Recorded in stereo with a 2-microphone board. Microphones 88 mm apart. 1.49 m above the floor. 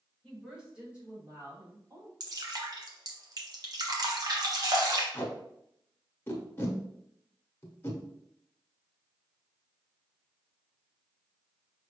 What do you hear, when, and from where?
0.2 s a woman speaking: centre (ahead or behind), 1.9 m; by 2.1 s 30° right (ahead or behind), 3 m
2.2 s dripping: 45° right (ahead or behind), 0.9 m
5.1 s tape being pulled: 25° left (ahead or behind), 1.2 m